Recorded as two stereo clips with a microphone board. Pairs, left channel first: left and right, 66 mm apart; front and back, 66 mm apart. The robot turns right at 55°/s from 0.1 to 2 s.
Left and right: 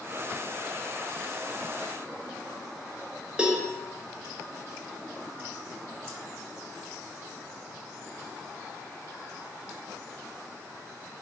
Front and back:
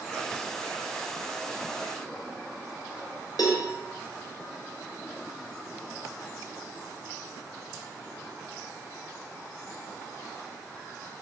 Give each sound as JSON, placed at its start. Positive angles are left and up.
{"t": 3.4, "sound": "a cowbell", "azimuth_deg": -15, "distance_m": 0.7}